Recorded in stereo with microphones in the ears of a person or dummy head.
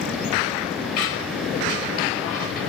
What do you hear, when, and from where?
1.0 s a squeak: 75° left (ahead or behind), 1.0 m